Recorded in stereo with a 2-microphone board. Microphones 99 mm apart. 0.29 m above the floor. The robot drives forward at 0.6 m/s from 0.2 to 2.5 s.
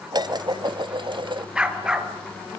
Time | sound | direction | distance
0.1 | dishes clattering | 45° right (ahead or behind) | 1.1 m
1.6 | a dog barking | 10° right (ahead or behind) | 2.5 m